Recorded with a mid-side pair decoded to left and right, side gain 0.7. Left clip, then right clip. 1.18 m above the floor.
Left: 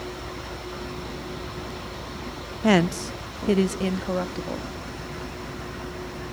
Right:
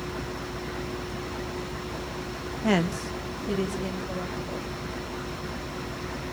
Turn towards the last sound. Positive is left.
turn(degrees=55)